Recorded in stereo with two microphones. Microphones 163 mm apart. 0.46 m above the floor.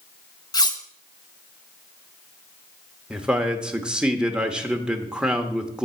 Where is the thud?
No thud in this recording.